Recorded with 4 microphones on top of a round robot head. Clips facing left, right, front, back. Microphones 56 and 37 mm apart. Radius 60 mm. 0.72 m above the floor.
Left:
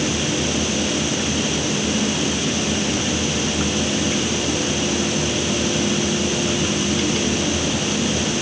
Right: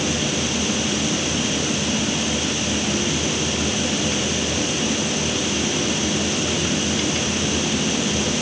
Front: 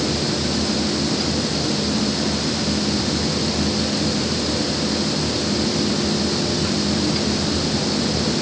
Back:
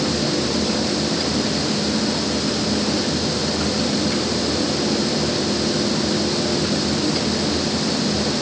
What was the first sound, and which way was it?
Only background noise.